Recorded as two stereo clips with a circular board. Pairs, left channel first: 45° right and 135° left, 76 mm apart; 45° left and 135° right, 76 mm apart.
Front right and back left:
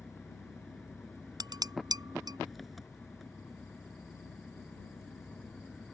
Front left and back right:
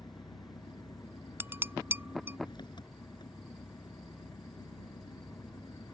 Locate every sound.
0.0 s an engine running: 45° left
1.4 s dishes clattering: 165° left